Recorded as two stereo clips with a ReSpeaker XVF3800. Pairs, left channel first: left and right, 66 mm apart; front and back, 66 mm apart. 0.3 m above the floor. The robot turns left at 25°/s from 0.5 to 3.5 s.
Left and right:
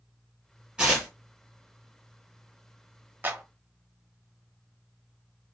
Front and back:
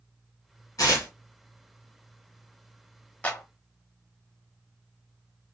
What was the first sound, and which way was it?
Tearing paper, 20° right.